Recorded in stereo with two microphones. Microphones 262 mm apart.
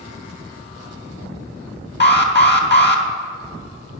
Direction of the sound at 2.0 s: 40° left (ahead or behind).